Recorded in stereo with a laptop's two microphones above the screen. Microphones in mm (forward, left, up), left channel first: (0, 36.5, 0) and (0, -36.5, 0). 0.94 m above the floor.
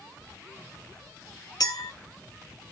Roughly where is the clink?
Left.